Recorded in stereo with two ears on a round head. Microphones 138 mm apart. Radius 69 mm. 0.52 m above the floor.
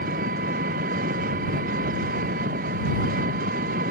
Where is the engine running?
60° right (ahead or behind).